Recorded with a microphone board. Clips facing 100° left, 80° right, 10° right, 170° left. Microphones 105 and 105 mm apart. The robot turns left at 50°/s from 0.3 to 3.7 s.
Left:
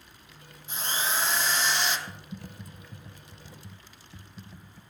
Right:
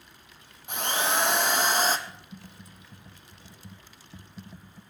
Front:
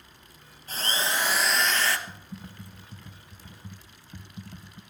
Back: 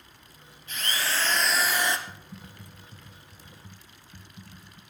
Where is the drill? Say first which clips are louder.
Right 4 dB, front 2 dB; 60° right, 1.5 m; by 2.0 s 125° right, 1.5 m.